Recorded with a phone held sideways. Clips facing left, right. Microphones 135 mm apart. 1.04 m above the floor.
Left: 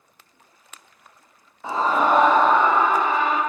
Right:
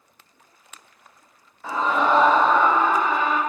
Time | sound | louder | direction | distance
1.6 | a scream | left 1 dB | 20° left (ahead or behind) | 0.5 m